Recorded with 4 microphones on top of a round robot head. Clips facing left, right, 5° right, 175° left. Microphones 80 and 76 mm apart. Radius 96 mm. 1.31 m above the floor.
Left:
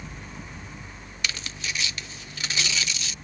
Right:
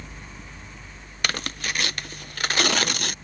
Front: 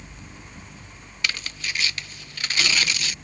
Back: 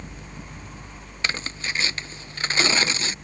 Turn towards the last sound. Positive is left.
turn(degrees=-125)